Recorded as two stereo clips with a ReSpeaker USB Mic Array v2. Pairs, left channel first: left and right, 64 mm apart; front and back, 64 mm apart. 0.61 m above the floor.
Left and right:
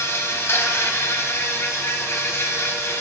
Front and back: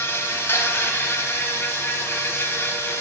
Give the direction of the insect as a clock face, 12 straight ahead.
10 o'clock.